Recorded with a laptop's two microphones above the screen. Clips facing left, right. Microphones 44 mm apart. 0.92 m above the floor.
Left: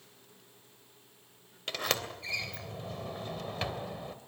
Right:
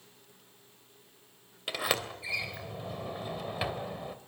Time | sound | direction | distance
1.7 | a sliding door | 10° right (ahead or behind) | 2.5 m